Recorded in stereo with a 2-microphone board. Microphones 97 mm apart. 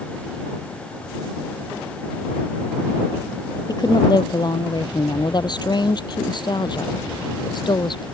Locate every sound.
3.7 s a woman speaking: 45° left (ahead or behind); by 8.1 s 50° left (ahead or behind)